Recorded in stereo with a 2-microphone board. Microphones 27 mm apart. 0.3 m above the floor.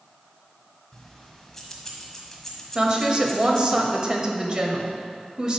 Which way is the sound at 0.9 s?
15° left (ahead or behind).